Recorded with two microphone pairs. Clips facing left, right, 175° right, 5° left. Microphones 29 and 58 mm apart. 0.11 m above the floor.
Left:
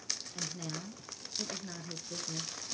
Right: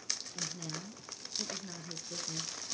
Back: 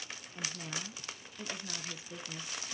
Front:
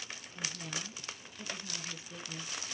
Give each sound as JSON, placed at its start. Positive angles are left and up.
{"t": 0.3, "sound": "a woman speaking", "azimuth_deg": 155, "distance_m": 1.5}